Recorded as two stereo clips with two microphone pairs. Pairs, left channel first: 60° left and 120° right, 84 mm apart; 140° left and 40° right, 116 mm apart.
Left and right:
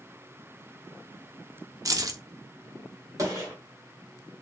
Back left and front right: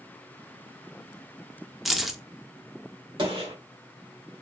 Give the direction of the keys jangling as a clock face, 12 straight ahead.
4 o'clock.